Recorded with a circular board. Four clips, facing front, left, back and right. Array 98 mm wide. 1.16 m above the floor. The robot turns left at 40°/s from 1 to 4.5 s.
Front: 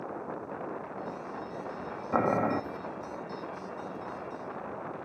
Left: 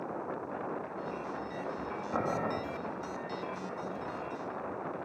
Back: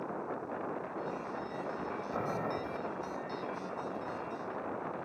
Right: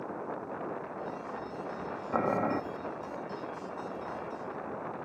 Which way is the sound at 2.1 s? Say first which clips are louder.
Right 4 dB, front 11 dB; 15° right.